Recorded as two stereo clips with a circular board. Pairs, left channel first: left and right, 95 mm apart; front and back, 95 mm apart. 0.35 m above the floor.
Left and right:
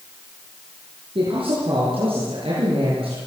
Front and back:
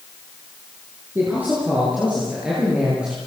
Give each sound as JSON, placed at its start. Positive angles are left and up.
{"t": 1.1, "sound": "a man speaking", "azimuth_deg": -110, "distance_m": 7.0}